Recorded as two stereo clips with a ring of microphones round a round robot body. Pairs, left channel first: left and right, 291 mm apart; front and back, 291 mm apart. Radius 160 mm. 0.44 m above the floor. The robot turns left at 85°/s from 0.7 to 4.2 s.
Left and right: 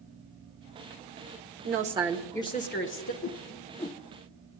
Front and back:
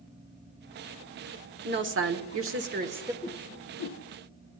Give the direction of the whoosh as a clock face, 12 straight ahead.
9 o'clock.